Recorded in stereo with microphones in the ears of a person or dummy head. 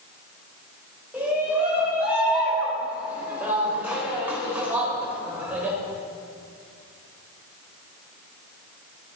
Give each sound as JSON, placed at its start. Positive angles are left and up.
{"t": 1.1, "sound": "a shout", "side_deg": -20, "distance_m": 5.5}